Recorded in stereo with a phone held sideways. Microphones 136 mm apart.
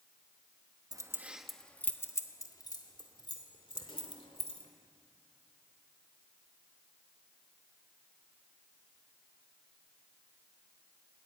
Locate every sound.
0.9 s keys jangling: 25° right (ahead or behind), 0.8 m; by 4.7 s 45° left (ahead or behind), 3 m